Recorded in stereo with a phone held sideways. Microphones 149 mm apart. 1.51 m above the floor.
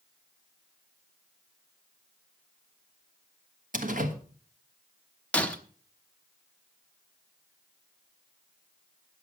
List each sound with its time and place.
3.7 s a door slam: 60° right (ahead or behind), 1.3 m
5.3 s breaking glass: 10° left (ahead or behind), 1.1 m